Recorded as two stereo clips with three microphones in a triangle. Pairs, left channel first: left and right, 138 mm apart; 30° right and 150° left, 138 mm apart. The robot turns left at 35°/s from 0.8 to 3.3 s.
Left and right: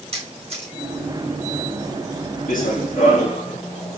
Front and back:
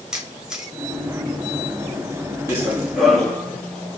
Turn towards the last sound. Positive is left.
turn(degrees=55)